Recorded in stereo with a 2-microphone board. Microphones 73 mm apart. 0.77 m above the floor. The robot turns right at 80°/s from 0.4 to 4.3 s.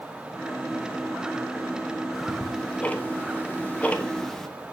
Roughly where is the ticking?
Centre.